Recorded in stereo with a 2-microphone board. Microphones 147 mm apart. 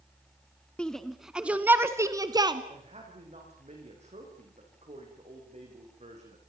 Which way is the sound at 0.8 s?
5° left (ahead or behind).